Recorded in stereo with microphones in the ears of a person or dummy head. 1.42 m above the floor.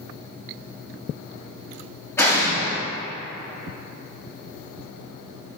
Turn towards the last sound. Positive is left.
turn(degrees=10)  # may be behind; listen again after turning